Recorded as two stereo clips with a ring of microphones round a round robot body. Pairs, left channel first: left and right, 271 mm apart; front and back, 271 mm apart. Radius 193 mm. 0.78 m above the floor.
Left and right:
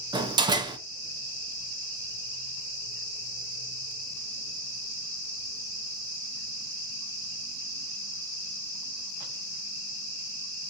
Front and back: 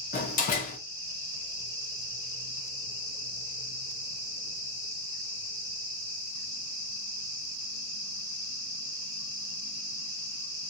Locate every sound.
0.1 s a door slam: 25° right, 0.5 m